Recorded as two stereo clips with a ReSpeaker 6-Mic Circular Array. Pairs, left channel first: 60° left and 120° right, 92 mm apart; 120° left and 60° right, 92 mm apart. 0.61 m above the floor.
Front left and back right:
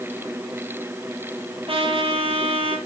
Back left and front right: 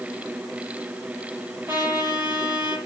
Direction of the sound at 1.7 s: 125° right.